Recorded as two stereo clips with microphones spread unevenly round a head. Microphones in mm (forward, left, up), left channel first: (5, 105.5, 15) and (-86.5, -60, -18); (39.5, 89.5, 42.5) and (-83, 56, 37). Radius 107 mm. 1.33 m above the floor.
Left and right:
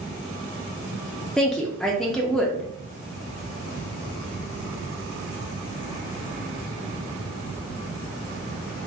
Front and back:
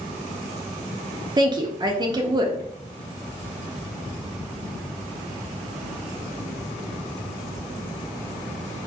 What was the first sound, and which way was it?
A woman speaking, 160° left.